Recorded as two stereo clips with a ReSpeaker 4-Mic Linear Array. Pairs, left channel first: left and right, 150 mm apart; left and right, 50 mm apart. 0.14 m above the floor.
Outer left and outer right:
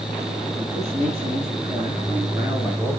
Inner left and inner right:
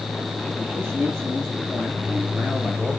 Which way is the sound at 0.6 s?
50° right (ahead or behind).